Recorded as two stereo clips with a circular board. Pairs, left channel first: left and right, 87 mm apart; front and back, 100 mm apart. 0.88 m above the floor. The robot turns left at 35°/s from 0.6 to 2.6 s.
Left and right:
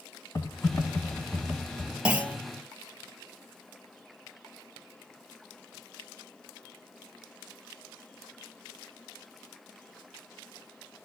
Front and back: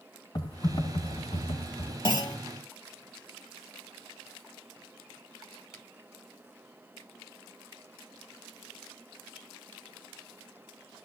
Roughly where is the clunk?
Ahead.